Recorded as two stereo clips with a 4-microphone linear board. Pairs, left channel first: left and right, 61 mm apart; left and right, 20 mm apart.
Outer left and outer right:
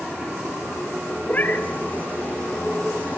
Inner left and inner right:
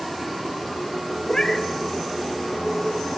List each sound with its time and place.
1.3 s a cat meowing: 30° left (ahead or behind), 1.5 m